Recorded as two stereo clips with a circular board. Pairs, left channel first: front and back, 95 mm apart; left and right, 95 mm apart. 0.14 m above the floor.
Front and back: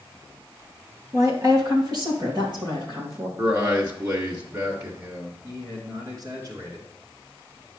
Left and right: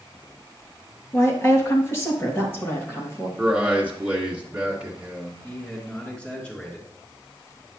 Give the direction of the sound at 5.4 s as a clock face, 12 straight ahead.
7 o'clock.